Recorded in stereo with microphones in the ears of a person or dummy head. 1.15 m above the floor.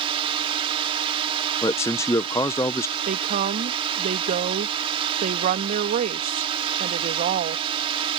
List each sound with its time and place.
0.0 s a drone: 25° right (ahead or behind)
1.6 s a man speaking: 15° left (ahead or behind)
3.0 s a woman speaking: 45° right (ahead or behind)